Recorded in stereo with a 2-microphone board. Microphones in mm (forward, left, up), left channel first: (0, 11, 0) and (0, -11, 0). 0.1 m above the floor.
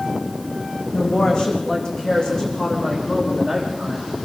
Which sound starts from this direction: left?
A woman speaking, at 0.9 s.